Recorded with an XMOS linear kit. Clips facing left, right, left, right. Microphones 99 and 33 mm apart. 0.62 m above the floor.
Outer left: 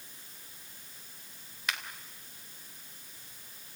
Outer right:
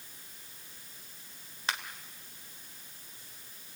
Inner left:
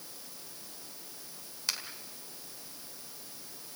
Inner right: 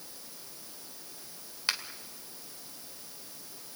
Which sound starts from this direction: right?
A finger snap, at 1.7 s.